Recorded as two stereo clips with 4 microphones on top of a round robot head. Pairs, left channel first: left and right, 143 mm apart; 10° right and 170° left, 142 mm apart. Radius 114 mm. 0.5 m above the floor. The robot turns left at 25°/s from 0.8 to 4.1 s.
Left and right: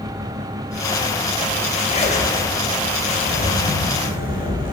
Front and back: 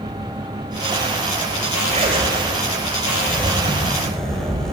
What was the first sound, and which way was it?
A zipper, 135° left.